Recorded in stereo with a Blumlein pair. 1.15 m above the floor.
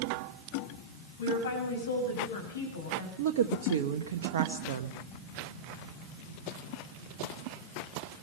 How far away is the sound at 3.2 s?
About 1.1 m.